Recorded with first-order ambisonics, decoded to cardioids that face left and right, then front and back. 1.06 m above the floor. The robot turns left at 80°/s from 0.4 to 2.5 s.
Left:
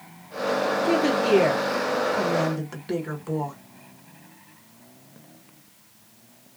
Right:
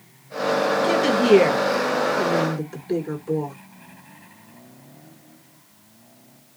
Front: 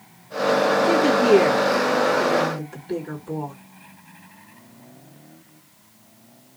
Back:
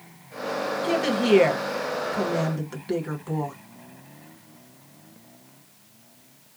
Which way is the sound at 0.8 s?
95° right.